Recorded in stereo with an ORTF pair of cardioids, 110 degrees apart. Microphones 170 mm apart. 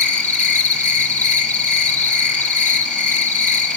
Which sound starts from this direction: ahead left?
An insect, at 0.0 s.